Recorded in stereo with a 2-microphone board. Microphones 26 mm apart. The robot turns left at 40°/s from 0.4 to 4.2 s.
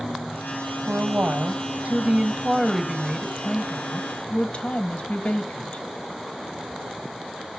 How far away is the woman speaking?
About 1.5 m.